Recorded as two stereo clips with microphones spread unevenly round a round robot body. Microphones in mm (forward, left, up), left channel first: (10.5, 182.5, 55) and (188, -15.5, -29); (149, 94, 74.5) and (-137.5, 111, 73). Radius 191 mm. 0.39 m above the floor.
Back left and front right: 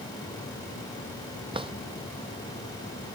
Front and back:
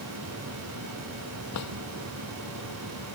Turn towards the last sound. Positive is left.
turn(degrees=25)